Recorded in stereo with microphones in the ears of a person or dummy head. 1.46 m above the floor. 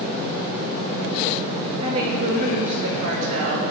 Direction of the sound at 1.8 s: 35° right (ahead or behind).